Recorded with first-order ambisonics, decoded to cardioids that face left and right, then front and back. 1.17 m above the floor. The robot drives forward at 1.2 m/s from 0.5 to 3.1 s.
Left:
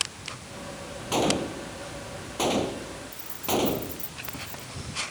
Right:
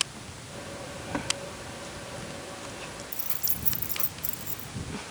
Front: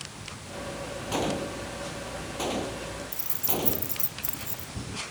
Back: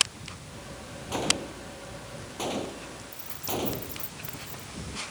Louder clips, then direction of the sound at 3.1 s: Left 10 dB, back 2 dB; 45° right.